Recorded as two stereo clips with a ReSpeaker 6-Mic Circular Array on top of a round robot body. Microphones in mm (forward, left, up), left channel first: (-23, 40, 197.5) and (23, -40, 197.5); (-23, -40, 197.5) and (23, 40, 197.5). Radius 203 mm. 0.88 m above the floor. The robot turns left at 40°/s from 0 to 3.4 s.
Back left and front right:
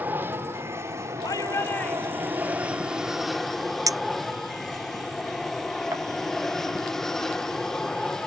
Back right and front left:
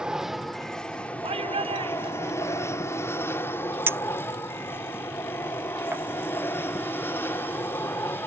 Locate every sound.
0.0 s an aircraft: 10° right; by 8.3 s 160° right
1.2 s a shout: 70° left; by 2.7 s 15° left
3.9 s a clink: 5° right